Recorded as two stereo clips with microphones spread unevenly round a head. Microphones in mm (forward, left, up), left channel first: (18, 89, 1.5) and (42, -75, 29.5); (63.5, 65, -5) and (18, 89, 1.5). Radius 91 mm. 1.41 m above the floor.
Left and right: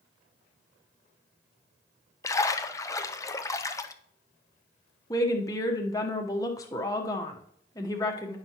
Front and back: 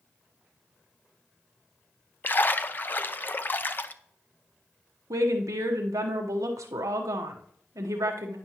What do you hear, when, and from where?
2.2 s a splash: 25° left, 0.6 m
5.1 s a woman speaking: 170° left, 1.0 m